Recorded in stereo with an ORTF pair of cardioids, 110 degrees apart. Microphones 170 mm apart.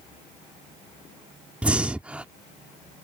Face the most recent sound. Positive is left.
turn(degrees=-10)